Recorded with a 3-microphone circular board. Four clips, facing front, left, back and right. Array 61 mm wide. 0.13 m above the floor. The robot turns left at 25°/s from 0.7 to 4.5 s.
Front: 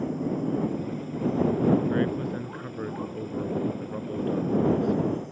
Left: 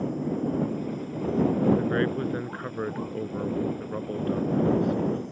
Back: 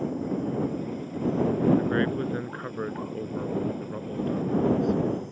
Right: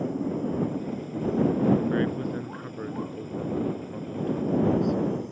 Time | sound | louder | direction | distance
1.8 | a man speaking | left 1 dB, even | 145° left | ?